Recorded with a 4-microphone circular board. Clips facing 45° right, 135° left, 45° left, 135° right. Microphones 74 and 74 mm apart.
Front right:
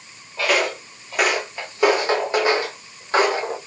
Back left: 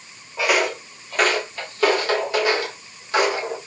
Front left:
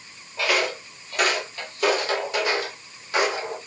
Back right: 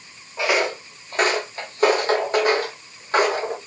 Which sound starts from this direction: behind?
Footsteps, at 0.4 s.